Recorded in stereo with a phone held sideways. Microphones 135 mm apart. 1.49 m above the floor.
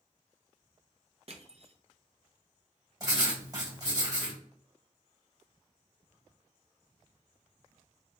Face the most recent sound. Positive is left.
turn(degrees=-30)  # may be behind; listen again after turning